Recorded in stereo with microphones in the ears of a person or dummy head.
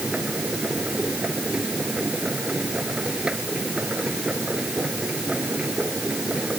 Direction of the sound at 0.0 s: 5° left (ahead or behind).